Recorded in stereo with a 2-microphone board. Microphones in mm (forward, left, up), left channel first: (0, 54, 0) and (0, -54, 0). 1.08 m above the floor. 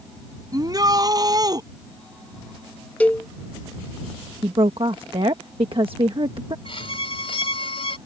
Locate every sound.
0.5 s a shout: 35° right (ahead or behind)
3.0 s a cowbell: 15° left (ahead or behind)
4.4 s a woman speaking: 55° right (ahead or behind)
6.7 s a violin: 60° left (ahead or behind)